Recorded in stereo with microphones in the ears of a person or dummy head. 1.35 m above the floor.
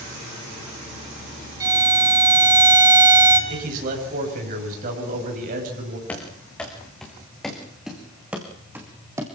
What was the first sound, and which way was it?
A violin, 20° right (ahead or behind).